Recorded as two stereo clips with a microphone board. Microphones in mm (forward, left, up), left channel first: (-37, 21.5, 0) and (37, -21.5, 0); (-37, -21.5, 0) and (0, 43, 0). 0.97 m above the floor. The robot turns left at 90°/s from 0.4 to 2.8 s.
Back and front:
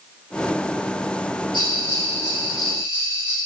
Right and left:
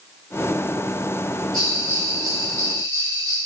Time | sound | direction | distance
1.5 | a bell | 155° left | 3 m